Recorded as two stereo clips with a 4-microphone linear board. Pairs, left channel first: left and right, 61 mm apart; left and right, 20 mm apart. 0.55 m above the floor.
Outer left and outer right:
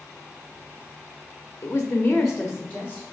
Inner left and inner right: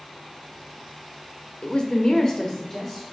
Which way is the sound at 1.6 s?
35° left (ahead or behind).